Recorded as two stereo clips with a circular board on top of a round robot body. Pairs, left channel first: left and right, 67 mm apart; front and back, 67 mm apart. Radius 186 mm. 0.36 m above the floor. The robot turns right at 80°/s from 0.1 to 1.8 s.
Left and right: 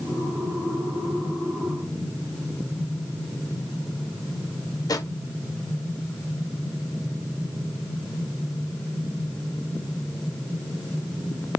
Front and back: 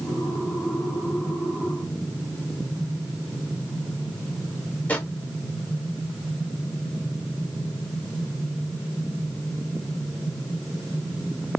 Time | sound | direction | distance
4.9 | a drawer | 65° left | 1.5 m